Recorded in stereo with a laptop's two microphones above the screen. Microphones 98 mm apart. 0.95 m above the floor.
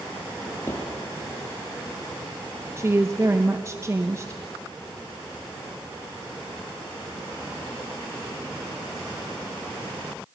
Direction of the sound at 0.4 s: 25° left (ahead or behind).